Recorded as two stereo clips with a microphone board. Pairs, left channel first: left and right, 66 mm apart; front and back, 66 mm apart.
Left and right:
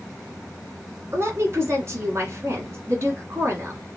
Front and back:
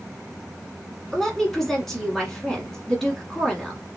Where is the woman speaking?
80° right, 1.4 m.